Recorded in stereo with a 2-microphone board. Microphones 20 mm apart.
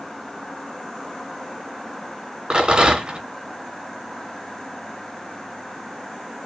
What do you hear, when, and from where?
2.5 s a rattle: 55° right (ahead or behind), 2.5 m